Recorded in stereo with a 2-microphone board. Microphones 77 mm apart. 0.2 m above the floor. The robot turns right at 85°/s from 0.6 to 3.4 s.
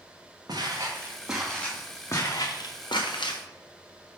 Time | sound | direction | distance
0.5 | footsteps | 60° right (ahead or behind) | 2.5 m